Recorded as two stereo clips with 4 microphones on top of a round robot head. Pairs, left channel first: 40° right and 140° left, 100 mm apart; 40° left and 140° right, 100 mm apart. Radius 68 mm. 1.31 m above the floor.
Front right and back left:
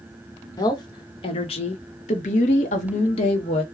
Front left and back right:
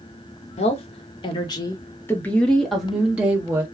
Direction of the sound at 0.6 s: 15° left.